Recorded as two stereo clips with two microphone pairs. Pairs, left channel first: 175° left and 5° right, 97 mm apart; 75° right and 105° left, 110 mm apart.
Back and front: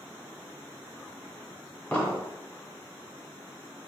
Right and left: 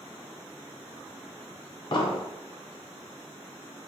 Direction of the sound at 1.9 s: 110° right.